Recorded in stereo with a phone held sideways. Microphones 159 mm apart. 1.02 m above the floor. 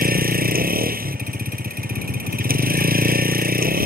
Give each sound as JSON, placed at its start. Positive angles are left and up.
{"t": 0.0, "sound": "a vehicle", "side_deg": -65}